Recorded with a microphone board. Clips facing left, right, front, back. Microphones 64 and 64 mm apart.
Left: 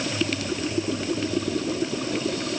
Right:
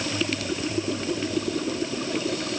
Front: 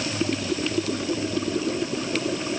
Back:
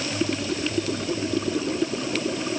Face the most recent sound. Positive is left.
No sound to turn to.